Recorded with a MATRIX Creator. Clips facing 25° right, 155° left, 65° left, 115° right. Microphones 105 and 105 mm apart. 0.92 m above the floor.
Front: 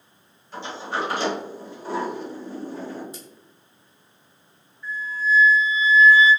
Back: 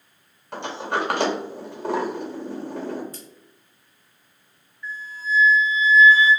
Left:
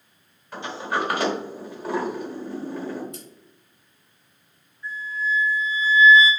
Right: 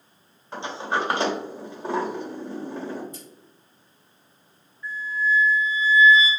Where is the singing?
I don't hear singing.